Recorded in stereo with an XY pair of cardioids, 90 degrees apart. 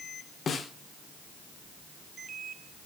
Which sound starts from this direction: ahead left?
A snare drum, at 0.5 s.